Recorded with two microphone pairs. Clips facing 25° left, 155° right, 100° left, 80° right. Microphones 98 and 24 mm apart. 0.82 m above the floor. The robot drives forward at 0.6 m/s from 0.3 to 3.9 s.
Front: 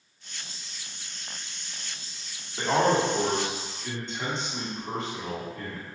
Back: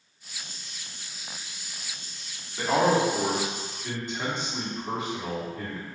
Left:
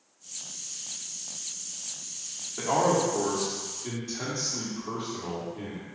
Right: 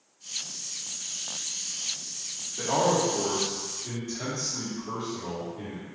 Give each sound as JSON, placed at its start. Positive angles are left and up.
{"t": 2.6, "sound": "a man speaking", "azimuth_deg": 90, "distance_m": 1.4}